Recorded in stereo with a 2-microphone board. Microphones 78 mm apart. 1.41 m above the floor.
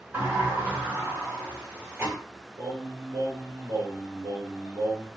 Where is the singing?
75° right (ahead or behind), 2 m.